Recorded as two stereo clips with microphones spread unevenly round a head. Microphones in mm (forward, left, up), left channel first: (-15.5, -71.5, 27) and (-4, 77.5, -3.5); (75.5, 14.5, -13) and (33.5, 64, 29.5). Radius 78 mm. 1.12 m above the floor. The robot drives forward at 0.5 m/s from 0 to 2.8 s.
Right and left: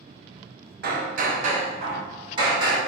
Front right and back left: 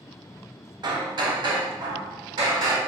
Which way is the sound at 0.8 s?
105° left.